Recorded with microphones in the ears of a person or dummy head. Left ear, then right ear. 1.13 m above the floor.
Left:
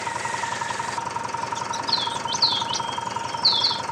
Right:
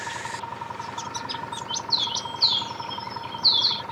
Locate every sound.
0.0 s an engine running: 85° left
1.9 s a bird: 20° right (ahead or behind)